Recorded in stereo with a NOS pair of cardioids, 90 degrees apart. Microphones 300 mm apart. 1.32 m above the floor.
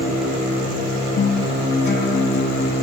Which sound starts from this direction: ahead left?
A guitar, at 1.2 s.